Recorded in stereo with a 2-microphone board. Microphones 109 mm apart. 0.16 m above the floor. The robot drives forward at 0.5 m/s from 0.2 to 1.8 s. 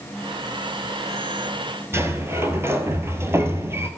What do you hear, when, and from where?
1.9 s a sliding door: 20° right (ahead or behind), 1.0 m